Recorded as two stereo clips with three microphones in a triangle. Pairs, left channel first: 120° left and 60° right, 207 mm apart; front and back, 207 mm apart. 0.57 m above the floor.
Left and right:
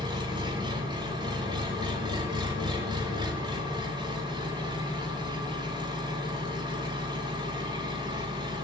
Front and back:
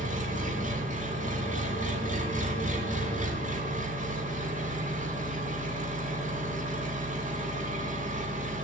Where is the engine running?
130° right, 1.8 m.